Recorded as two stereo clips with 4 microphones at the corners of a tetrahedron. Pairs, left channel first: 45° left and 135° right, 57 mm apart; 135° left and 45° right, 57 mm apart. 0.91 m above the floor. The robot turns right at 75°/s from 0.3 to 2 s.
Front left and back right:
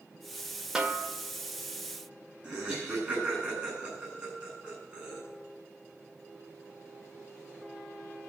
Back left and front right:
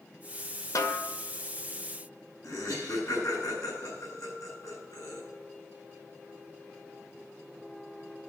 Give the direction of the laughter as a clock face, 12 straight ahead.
7 o'clock.